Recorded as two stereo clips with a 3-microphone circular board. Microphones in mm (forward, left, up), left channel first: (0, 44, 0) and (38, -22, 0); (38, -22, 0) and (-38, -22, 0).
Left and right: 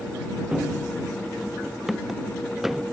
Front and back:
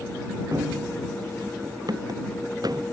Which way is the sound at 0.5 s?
140° right.